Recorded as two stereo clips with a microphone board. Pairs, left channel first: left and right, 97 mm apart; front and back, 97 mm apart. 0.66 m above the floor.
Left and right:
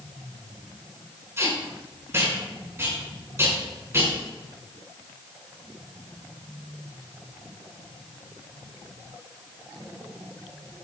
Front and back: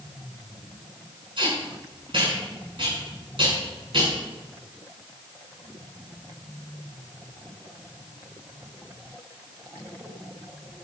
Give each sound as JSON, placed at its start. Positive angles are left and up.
{"t": 1.4, "sound": "tape being pulled", "azimuth_deg": -150, "distance_m": 6.5}